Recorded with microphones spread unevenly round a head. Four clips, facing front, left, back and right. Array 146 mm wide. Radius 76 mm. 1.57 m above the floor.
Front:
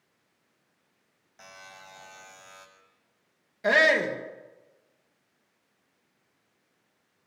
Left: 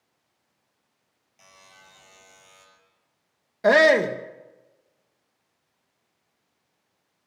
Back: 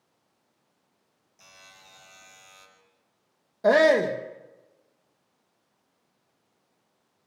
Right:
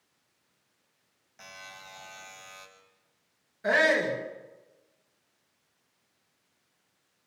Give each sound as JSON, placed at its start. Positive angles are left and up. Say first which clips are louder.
{"t": 1.4, "sound": "a buzzer", "louder": "right 6 dB, front 7 dB", "azimuth_deg": -35, "distance_m": 6.5}
{"t": 3.6, "sound": "a shout", "louder": "left 8 dB, back 4 dB", "azimuth_deg": 125, "distance_m": 2.5}